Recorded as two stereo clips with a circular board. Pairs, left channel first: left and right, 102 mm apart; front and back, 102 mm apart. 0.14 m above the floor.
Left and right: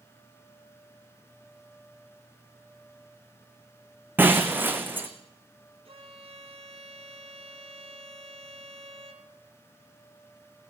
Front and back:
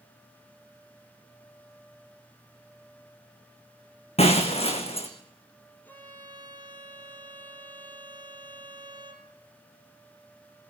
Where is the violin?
70° right, 3.5 m.